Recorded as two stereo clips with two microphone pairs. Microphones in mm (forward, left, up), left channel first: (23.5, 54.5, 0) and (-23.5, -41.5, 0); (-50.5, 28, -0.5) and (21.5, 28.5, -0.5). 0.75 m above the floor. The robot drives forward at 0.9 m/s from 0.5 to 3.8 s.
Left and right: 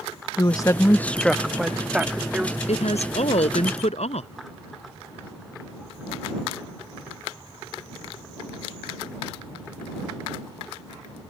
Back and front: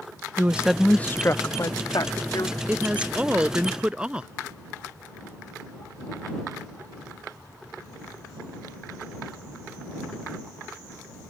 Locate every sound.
0.4 s a woman speaking: 55° left; by 2.6 s 170° left
2.7 s a woman speaking: 70° left; by 4.3 s 75° left